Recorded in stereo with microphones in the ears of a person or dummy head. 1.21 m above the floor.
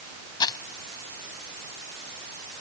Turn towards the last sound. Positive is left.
turn(degrees=25)  # may be behind; listen again after turning